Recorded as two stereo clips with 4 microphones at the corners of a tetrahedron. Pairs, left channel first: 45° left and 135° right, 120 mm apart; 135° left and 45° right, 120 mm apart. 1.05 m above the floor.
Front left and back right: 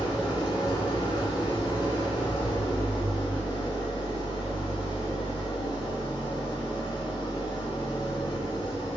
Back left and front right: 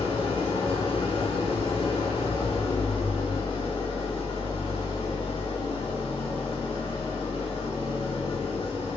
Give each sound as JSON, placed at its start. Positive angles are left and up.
{"t": 0.0, "sound": "an engine running", "azimuth_deg": 100, "distance_m": 2.5}